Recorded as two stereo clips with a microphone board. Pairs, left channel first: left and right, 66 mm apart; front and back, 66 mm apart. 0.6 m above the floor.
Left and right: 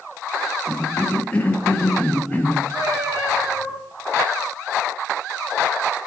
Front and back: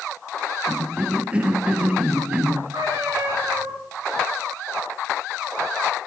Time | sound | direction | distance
0.7 | a cough | 130° left | 0.6 m
2.7 | a cat meowing | 145° right | 3.5 m